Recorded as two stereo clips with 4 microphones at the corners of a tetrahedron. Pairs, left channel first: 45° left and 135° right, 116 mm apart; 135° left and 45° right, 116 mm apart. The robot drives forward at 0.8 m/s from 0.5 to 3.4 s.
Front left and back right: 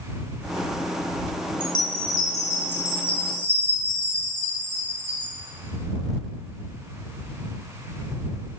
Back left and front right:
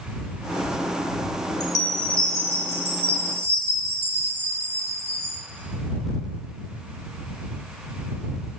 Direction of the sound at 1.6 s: 85° left.